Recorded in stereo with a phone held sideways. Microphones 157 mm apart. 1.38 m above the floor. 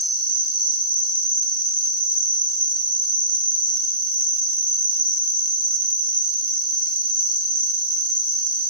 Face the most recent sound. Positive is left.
turn(degrees=-80)